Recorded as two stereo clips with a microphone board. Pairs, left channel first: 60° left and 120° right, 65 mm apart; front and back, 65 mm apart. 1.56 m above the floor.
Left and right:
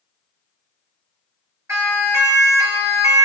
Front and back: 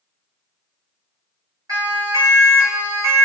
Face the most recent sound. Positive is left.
turn(degrees=-140)